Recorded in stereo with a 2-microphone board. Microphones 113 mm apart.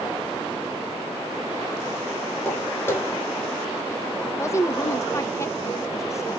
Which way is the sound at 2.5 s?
25° left (ahead or behind).